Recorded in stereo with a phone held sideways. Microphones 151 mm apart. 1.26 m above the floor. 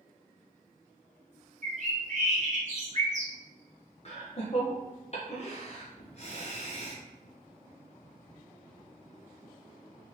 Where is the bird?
55° right (ahead or behind), 0.9 m.